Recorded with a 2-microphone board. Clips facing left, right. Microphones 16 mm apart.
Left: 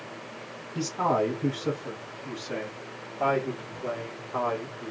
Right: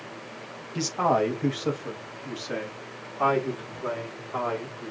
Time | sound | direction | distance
0.8 | a man speaking | 45° right (ahead or behind) | 0.9 m